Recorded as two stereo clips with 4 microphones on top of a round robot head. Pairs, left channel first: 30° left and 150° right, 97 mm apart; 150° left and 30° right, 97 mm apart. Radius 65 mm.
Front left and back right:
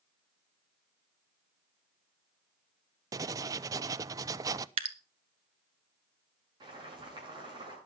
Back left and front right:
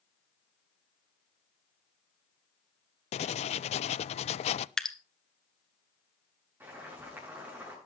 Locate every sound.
3.1 s writing: 155° left, 0.5 m
4.8 s dripping: 130° right, 1.4 m
6.6 s boiling: 105° right, 8 m